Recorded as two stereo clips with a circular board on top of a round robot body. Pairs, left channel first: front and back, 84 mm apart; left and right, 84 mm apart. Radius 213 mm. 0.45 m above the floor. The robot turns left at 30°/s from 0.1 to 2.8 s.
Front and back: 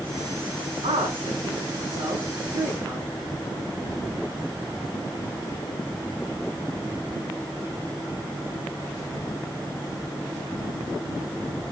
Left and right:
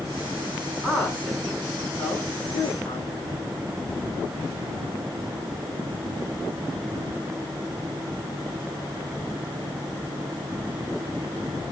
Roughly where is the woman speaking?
Behind.